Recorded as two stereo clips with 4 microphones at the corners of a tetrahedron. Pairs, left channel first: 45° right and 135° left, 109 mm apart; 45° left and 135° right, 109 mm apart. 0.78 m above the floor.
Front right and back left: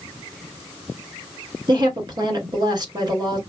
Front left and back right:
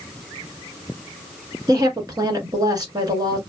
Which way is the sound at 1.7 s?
Straight behind.